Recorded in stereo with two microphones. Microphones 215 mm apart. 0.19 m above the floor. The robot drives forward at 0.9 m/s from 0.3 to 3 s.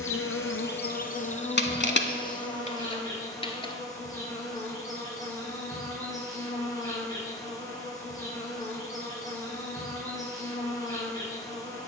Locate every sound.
0.0 s an insect: 80° left, 0.7 m; by 11.9 s 15° left (ahead or behind), 2.5 m
1.6 s crushing: 50° left (ahead or behind), 0.7 m; by 3.7 s 25° left (ahead or behind), 1.2 m